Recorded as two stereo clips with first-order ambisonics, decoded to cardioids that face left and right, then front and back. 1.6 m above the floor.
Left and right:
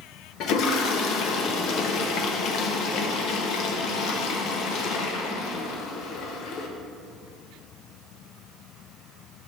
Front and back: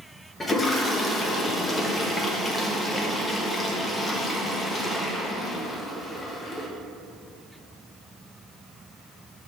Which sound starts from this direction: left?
A toilet flushing, at 0.4 s.